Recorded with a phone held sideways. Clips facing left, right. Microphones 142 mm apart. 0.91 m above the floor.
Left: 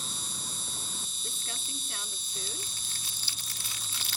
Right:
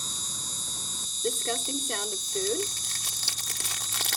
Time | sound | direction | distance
0.0 | an insect | 40° right (ahead or behind) | ?
1.2 | crumpling | 75° right (ahead or behind) | ?